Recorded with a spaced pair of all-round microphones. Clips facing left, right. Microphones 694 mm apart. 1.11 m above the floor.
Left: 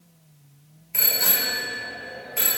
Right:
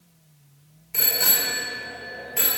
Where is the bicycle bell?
60° right (ahead or behind), 3 m; by 2.6 s 40° right (ahead or behind), 3.5 m.